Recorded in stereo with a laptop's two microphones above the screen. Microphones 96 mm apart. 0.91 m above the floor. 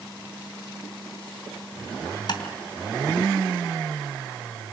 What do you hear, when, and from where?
2.3 s tapping: 55° left (ahead or behind), 2.5 m